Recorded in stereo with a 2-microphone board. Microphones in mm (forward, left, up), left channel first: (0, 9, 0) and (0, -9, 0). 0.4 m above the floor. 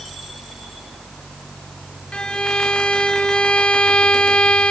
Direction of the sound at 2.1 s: 70° left (ahead or behind).